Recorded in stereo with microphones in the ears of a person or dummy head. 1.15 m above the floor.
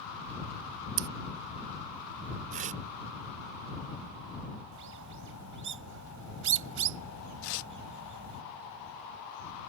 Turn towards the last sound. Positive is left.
turn(degrees=75)  # may be behind; listen again after turning